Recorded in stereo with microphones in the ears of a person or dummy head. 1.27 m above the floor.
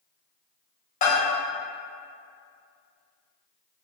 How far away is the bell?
About 1.1 m.